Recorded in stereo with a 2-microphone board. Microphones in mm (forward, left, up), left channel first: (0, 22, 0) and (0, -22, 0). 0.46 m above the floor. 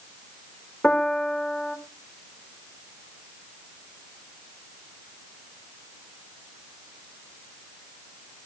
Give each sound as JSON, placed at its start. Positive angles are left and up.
{"t": 0.8, "sound": "a piano", "side_deg": 30, "distance_m": 1.6}